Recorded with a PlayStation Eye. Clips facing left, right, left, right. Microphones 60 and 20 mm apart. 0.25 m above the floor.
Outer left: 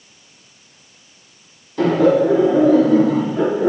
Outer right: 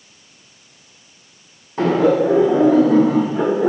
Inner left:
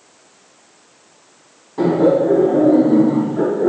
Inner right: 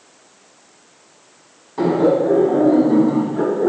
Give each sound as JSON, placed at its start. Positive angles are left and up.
{"t": 1.8, "sound": "laughter", "side_deg": -30, "distance_m": 1.9}